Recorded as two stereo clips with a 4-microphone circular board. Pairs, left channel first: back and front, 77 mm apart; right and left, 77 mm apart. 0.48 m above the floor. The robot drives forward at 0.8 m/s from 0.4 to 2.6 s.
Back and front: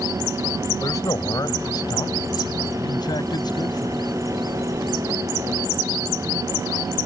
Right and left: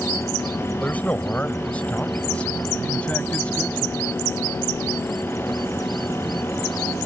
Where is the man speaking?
155° right; by 4.1 s 165° right.